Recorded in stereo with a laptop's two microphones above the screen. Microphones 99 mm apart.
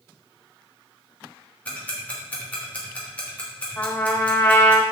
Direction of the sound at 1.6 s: 15° left (ahead or behind).